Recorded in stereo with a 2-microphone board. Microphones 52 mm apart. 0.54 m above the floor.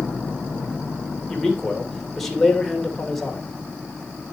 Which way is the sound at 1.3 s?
5° left (ahead or behind).